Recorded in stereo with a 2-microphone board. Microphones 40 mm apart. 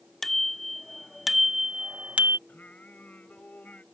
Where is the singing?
40° left (ahead or behind).